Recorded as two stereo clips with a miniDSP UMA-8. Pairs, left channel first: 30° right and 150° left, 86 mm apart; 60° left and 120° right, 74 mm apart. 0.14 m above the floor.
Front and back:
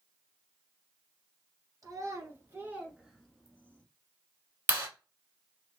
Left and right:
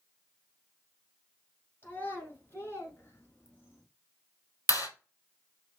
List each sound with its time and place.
1.8 s a child speaking: 115° left, 2 m; by 3.8 s 20° left, 1.5 m
4.7 s a clap: 90° left, 2.5 m